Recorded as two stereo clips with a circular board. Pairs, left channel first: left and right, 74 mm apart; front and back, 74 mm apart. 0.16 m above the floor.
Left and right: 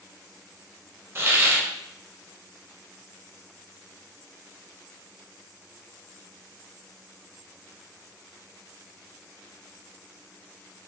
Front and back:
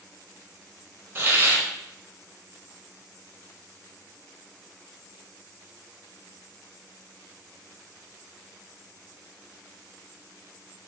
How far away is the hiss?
About 0.5 m.